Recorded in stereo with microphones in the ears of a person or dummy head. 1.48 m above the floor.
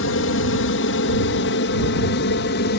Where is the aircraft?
60° left (ahead or behind); by 2.8 s 50° left (ahead or behind).